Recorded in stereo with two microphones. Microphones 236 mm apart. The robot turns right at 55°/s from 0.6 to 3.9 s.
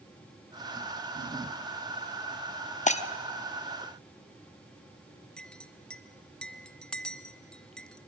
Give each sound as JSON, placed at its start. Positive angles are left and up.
{"t": 2.9, "sound": "breaking glass", "side_deg": 30, "distance_m": 0.7}
{"t": 5.4, "sound": "a clink", "side_deg": 5, "distance_m": 0.6}